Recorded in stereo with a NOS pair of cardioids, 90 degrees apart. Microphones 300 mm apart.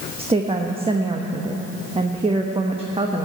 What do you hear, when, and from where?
0.2 s a woman speaking: 20° right, 1.1 m